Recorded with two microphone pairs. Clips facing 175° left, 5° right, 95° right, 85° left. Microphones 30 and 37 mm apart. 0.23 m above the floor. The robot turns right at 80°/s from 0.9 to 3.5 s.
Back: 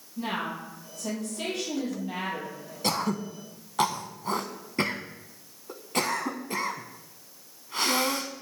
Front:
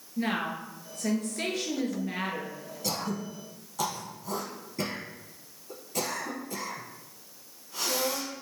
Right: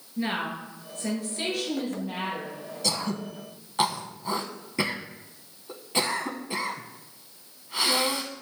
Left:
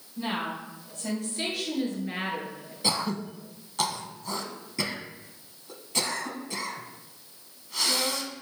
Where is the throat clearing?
145° left, 0.7 m; by 8.3 s 160° right, 0.7 m.